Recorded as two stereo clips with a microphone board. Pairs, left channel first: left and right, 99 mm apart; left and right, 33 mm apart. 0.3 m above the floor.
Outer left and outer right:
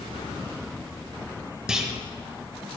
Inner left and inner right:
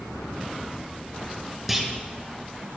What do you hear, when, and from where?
1.7 s a clunk: 5° right (ahead or behind), 1.0 m